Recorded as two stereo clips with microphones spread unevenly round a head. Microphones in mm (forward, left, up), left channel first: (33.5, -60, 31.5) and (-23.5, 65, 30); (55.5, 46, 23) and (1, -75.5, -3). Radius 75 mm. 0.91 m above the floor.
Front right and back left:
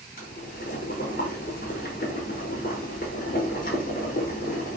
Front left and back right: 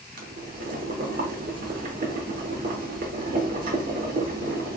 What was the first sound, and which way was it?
Boiling, 95° right.